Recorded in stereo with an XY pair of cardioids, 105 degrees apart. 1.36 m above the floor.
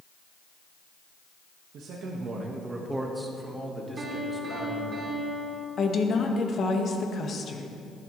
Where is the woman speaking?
50° left, 1.6 m.